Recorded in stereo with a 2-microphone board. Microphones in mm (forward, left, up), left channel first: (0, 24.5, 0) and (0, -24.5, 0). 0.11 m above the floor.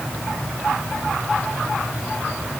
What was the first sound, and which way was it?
Only background noise.